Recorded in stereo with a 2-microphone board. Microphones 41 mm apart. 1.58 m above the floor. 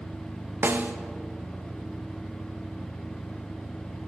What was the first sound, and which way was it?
A snare drum, 65° right (ahead or behind).